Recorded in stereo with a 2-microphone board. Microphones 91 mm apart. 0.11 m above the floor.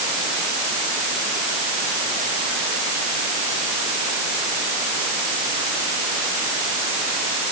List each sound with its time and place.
Only background noise.